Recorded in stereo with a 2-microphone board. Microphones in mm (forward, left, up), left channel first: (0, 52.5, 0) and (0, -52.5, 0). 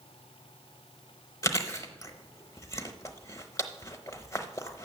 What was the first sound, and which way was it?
Chewing, 30° left (ahead or behind).